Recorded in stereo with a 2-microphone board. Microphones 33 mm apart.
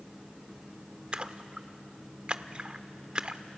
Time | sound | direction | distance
1.1 | a splash | 35° right (ahead or behind) | 0.7 m